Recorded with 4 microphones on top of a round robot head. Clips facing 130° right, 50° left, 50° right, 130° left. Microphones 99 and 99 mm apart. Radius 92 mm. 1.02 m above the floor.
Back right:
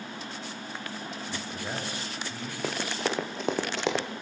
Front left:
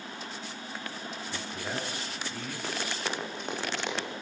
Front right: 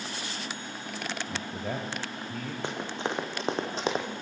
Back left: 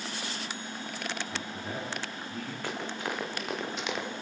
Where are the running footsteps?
120° right, 5 m; by 4.1 s 105° right, 3 m.